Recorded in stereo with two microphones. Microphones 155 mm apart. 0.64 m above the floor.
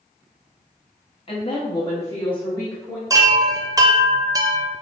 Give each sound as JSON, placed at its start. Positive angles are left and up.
{"t": 1.3, "sound": "a woman speaking", "side_deg": 35, "distance_m": 1.1}
{"t": 3.1, "sound": "a chime", "side_deg": -20, "distance_m": 0.6}